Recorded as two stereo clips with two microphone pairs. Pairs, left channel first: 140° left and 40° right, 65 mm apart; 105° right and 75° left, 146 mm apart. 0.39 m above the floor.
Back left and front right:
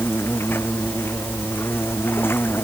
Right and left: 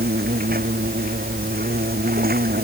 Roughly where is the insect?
Left.